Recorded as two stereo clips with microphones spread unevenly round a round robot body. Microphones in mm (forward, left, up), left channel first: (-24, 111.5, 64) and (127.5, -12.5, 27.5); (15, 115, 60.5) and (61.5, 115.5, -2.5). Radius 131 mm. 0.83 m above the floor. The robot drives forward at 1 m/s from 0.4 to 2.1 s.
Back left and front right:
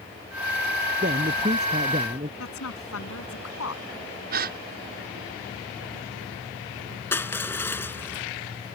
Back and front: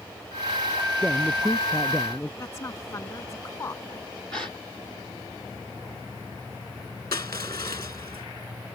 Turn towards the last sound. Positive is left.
turn(degrees=-140)